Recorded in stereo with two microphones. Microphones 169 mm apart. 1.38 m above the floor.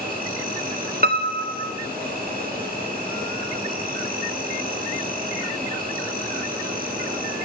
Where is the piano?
65° right (ahead or behind), 0.7 m.